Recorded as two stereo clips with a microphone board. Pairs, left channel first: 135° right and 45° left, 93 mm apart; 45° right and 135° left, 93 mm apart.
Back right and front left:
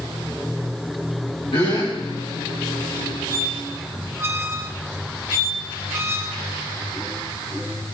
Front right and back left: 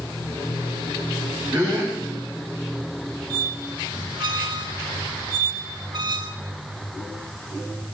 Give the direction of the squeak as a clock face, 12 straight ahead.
8 o'clock.